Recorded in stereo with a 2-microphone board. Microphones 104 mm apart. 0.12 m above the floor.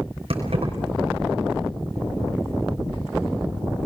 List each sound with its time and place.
0.3 s keys jangling: 65° right (ahead or behind), 4.5 m